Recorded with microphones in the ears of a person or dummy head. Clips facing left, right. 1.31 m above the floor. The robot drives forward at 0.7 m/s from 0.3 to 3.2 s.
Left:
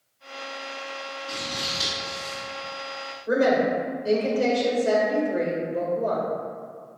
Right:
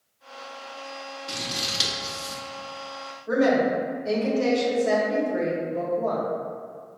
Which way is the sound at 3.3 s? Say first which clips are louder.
Even; 45° left (ahead or behind).